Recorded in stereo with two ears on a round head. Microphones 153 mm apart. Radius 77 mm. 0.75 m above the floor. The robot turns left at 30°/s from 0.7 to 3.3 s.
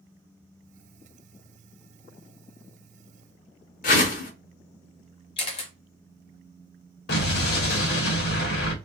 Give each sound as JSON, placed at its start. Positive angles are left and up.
{"t": 3.8, "sound": "a whoosh", "side_deg": 50, "distance_m": 0.7}
{"t": 5.4, "sound": "a camera shutter", "side_deg": 35, "distance_m": 0.7}
{"t": 7.1, "sound": "an explosion", "side_deg": 60, "distance_m": 0.8}